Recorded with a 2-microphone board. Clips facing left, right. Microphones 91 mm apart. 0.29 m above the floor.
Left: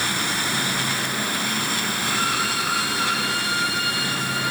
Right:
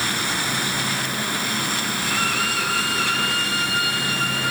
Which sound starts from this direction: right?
A violin, at 2.0 s.